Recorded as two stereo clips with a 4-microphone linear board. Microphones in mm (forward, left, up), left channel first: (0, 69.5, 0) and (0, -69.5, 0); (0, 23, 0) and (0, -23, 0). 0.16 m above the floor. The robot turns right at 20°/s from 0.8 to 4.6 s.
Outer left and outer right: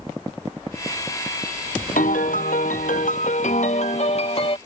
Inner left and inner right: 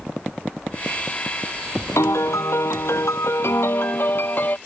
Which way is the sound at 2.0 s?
85° left.